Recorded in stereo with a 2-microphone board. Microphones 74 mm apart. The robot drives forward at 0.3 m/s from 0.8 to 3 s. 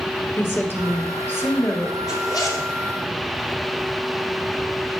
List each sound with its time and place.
0.4 s a woman speaking: 30° left (ahead or behind), 2 m; by 2.0 s 35° left (ahead or behind), 1.9 m
2.1 s a zipper: 60° left (ahead or behind), 3 m